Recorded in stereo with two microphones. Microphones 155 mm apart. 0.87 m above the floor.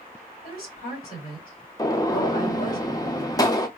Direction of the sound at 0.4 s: 75° left (ahead or behind).